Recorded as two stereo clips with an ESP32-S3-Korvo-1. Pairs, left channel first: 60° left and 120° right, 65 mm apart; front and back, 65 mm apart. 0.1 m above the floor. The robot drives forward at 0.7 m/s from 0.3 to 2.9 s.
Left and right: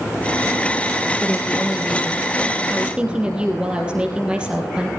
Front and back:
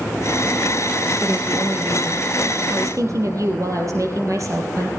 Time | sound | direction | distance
1.2 | a woman speaking | 150° left | 1.2 m